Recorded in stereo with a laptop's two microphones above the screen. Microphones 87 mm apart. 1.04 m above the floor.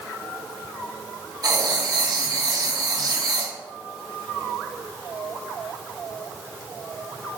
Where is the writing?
45° right (ahead or behind), 0.6 m.